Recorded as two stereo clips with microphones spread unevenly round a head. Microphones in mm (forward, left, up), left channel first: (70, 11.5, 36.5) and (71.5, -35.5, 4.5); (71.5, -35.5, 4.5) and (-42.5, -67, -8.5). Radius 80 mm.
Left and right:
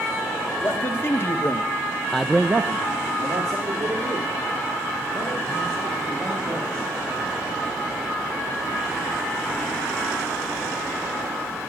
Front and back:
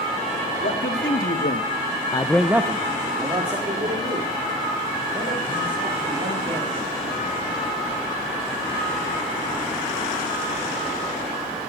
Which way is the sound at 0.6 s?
45° left.